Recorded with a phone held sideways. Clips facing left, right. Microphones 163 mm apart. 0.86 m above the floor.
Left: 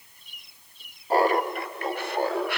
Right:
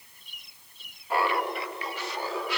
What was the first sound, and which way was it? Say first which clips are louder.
Laughter: left 5 dB; 40° left (ahead or behind).